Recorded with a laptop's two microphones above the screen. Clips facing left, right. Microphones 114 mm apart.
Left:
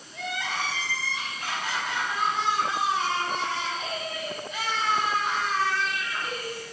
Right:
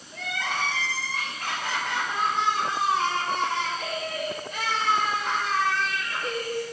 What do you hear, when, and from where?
0.1 s crying: 55° right (ahead or behind), 5.5 m